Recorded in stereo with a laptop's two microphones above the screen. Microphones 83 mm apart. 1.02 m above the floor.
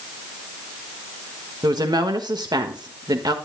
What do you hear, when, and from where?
1.6 s a woman speaking: 55° right (ahead or behind), 1.4 m